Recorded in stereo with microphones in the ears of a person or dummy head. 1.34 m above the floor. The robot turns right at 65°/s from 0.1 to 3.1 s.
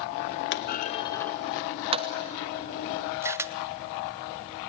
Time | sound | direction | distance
0.5 | a clunk | 60° left (ahead or behind) | 0.8 m
3.2 | a camera shutter | 20° right (ahead or behind) | 0.7 m